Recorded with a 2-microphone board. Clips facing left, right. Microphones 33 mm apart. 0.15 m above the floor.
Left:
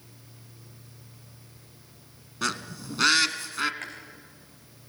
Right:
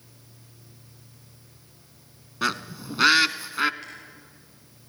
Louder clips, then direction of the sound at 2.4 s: Right 3 dB; 20° right (ahead or behind).